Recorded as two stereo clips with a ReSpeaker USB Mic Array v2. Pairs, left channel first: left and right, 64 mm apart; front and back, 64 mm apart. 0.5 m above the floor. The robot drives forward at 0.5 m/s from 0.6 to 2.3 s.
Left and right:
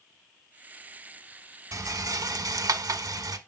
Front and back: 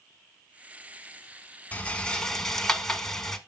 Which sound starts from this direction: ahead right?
A rattle, at 1.7 s.